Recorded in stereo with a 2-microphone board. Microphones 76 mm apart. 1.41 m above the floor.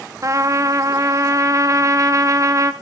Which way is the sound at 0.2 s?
40° right (ahead or behind).